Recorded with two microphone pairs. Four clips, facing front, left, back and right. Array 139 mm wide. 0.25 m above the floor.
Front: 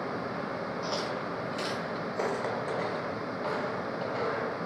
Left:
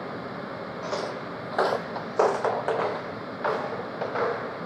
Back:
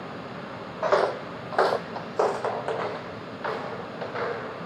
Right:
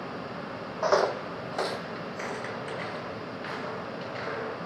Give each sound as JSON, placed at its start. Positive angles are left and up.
{"t": 0.8, "sound": "footsteps", "azimuth_deg": -140, "distance_m": 0.7}